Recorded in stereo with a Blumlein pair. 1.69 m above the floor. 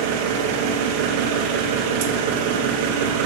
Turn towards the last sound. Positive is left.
turn(degrees=-50)